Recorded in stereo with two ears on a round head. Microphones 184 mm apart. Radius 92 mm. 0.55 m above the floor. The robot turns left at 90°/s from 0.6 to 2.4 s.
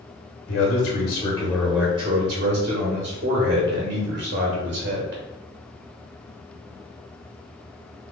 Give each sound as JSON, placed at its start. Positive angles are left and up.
{"t": 0.5, "sound": "a man speaking", "azimuth_deg": 95, "distance_m": 1.2}